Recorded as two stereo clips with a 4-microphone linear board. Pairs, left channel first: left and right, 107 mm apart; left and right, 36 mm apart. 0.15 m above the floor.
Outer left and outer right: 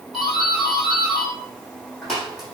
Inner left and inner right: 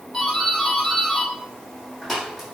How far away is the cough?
I don't hear a cough.